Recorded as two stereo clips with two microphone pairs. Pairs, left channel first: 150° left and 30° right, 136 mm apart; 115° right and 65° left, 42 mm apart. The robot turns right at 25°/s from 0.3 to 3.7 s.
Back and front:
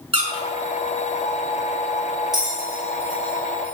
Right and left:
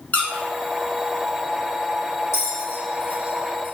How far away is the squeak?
About 0.8 m.